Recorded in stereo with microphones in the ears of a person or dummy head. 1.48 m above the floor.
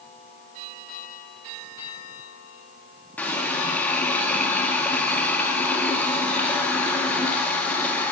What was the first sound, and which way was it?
A running tap, centre (ahead or behind).